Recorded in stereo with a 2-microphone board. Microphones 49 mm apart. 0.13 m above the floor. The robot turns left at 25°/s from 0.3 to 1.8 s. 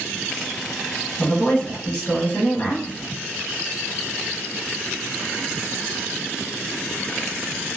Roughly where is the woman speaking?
Left.